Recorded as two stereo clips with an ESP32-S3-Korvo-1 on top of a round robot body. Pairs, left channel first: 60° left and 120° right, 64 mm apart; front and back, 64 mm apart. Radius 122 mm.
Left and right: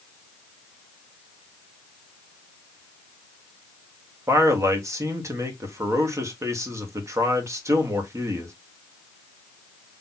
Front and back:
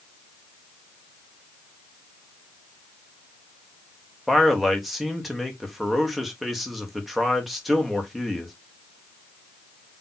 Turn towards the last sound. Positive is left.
turn(degrees=-95)